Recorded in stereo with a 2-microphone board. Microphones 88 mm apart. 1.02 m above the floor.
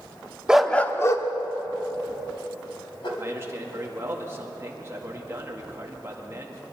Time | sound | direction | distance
0.5 | a dog barking | 10° right (ahead or behind) | 0.6 m
3.2 | a man speaking | 30° right (ahead or behind) | 2 m